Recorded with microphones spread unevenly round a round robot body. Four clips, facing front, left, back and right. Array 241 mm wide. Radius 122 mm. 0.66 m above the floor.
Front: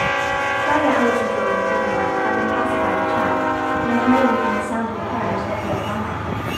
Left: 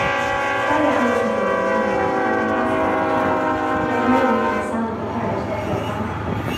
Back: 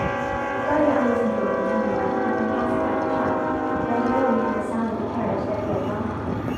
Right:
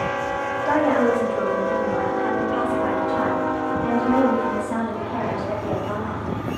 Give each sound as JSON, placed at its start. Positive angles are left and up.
{"t": 0.7, "sound": "a woman speaking", "azimuth_deg": -25, "distance_m": 1.9}